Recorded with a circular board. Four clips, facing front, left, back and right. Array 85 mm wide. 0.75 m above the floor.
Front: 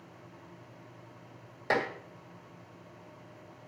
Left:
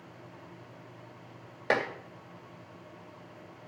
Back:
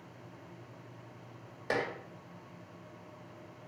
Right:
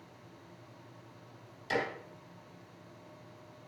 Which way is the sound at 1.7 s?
80° left.